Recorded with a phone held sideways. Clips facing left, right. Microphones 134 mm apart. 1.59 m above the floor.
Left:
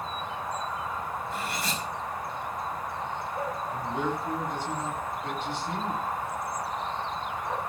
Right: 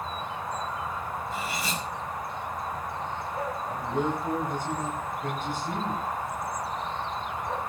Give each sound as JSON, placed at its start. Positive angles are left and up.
{"t": 1.3, "sound": "cutlery clinking", "side_deg": 0, "distance_m": 6.0}
{"t": 3.7, "sound": "a man speaking", "side_deg": -45, "distance_m": 9.5}